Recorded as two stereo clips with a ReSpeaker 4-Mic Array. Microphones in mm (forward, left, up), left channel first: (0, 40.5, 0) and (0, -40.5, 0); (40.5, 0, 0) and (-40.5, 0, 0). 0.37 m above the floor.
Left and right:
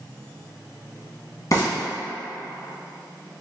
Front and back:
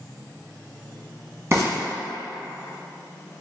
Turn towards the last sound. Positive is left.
turn(degrees=130)